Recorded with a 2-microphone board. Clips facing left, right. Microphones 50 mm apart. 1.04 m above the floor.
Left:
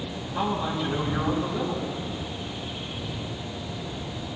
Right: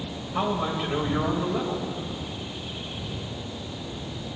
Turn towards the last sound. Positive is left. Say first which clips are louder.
# right 1 dB
turn(degrees=-50)  # may be behind; listen again after turning